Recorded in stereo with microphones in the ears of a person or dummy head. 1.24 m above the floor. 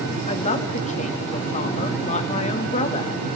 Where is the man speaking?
40° left (ahead or behind), 2 m.